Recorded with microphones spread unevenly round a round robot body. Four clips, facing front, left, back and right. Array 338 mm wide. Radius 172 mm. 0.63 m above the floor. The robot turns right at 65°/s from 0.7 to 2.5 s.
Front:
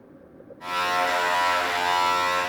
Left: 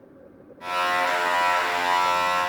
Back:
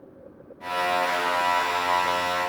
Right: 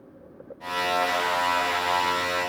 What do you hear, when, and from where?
Only background noise.